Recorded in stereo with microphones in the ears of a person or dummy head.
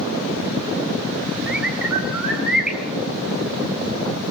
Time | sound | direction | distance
1.5 | a bird | 5° right (ahead or behind) | 4 m